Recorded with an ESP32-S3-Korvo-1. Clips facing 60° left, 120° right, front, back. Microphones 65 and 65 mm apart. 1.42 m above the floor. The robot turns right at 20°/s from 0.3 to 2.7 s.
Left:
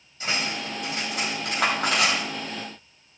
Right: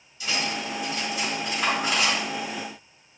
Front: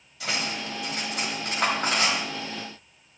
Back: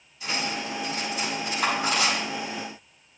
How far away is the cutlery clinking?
About 5 m.